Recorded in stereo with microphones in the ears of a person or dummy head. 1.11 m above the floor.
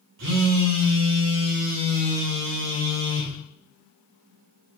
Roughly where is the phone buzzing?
Right.